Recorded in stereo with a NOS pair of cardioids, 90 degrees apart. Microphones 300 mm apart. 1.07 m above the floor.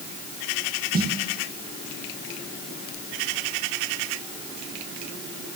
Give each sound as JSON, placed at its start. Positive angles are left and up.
{"t": 0.9, "sound": "a snare drum", "azimuth_deg": -30, "distance_m": 1.5}